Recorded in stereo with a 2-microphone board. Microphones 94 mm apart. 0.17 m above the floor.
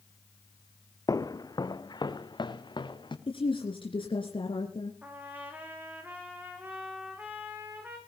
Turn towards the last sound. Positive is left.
turn(degrees=-15)  # may be behind; listen again after turning